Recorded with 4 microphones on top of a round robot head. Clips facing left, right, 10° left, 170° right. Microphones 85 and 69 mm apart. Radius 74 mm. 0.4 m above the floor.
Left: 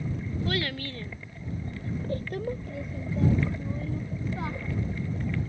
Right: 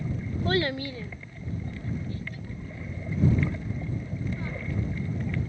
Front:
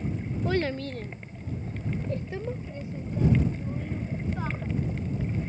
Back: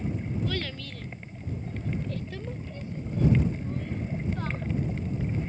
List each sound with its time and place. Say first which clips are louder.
0.5 s a child speaking: right 6 dB, front 6 dB; 45° right; by 4.7 s 90° left